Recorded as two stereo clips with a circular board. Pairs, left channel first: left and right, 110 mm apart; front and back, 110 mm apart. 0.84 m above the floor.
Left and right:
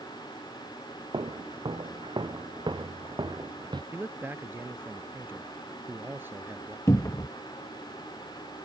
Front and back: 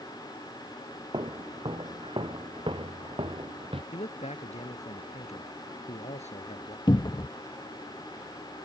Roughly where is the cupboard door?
Ahead left.